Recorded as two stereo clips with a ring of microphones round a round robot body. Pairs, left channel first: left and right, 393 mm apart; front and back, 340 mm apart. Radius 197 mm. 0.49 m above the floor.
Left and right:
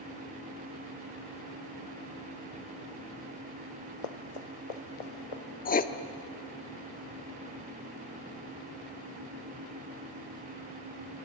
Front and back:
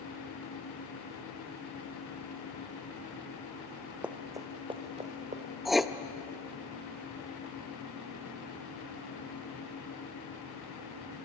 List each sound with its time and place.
4.0 s running footsteps: 95° left, 2.0 m; by 5.4 s 110° left, 3.5 m
5.7 s writing: 90° left, 0.9 m